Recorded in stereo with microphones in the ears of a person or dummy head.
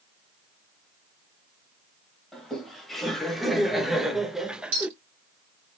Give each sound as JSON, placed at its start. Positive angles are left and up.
{"t": 2.3, "sound": "laughter", "side_deg": 0, "distance_m": 1.9}
{"t": 4.7, "sound": "a clink", "side_deg": -70, "distance_m": 3.0}